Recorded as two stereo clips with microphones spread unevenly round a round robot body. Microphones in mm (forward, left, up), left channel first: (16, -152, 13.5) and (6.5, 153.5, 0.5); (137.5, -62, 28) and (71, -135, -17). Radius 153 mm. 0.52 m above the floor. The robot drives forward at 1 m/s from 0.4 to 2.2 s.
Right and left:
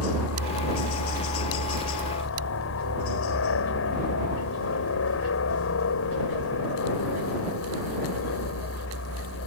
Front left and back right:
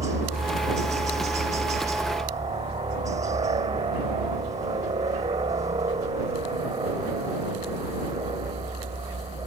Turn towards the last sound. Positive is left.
turn(degrees=-125)